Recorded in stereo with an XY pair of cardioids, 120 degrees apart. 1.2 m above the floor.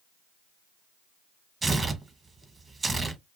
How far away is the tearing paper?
About 0.7 m.